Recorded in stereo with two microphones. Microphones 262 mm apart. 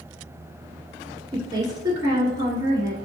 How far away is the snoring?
No snoring in this recording.